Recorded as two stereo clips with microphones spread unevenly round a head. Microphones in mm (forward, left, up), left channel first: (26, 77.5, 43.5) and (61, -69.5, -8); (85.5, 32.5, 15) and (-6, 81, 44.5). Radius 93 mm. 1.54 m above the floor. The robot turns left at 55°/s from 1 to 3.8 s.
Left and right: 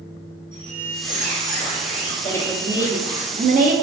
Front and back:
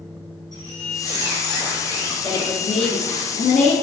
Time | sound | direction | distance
0.5 | a squeak | 150° left | 1.1 m
2.2 | a woman speaking | 35° left | 0.7 m